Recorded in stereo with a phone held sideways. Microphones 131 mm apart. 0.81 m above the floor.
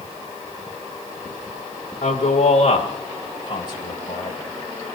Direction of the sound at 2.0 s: 65° left (ahead or behind).